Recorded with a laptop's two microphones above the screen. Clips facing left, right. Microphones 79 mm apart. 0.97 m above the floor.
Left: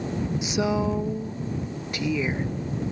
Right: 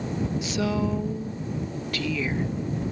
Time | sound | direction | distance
0.4 | a woman speaking | 20° left (ahead or behind) | ?